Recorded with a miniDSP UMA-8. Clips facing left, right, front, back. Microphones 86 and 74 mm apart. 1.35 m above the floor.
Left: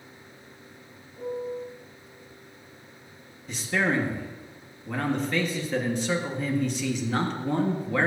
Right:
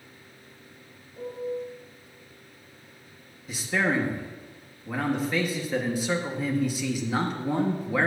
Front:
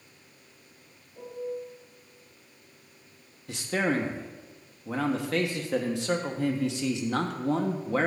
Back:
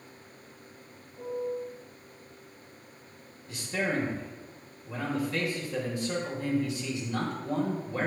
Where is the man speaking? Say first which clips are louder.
Even, front 3 dB; 5° right, 1.4 m.